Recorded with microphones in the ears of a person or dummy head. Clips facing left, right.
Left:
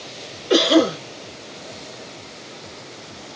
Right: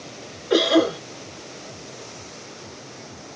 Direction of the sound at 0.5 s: 45° left (ahead or behind).